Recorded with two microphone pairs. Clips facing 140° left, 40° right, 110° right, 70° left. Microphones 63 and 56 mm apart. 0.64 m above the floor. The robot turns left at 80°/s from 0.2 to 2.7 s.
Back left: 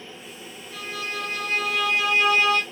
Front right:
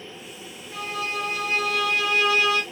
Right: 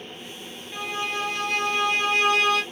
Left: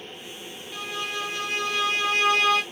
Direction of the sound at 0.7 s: 40° right.